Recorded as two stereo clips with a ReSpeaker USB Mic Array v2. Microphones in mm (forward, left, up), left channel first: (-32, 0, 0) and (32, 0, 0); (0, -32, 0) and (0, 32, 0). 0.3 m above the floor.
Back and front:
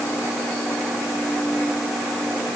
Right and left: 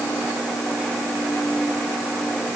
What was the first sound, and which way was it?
Only background noise.